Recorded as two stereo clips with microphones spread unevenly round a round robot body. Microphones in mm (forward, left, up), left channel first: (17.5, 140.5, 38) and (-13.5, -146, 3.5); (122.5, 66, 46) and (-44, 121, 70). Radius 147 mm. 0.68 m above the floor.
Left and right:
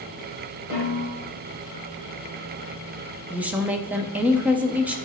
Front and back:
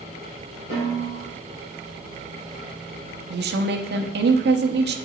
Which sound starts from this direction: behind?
A woman speaking, at 3.3 s.